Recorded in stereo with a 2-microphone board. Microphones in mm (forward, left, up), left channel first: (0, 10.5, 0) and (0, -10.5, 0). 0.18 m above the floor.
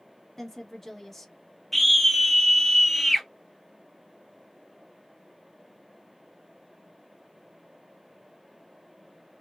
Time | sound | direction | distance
0.4 | a woman speaking | 15° left (ahead or behind) | 1.0 m
1.7 | a scream | 5° left (ahead or behind) | 1.0 m